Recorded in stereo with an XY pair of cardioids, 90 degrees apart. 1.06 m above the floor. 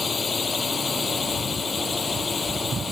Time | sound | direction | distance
0.0 | a drone | 35° left | ?